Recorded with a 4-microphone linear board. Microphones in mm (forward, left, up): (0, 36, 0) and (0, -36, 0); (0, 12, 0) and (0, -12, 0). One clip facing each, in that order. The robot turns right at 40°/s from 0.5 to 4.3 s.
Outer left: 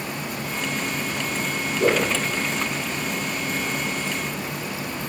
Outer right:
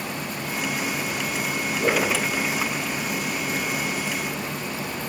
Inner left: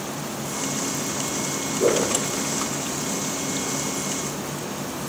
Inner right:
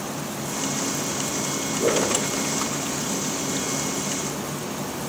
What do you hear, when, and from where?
1.8 s a whoosh: 45° left (ahead or behind), 1.2 m; by 2.1 s 55° left (ahead or behind), 1.2 m